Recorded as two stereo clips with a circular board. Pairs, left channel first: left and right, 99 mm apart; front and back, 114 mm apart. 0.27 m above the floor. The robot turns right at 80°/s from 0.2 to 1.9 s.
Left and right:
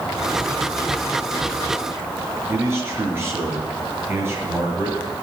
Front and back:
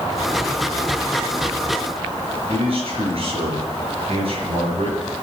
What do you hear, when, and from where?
2.5 s a man speaking: 155° right, 5 m